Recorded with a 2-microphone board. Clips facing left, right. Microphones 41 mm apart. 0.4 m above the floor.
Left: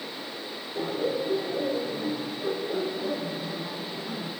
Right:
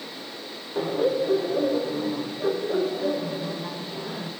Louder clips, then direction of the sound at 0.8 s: Right 5 dB; 35° right (ahead or behind).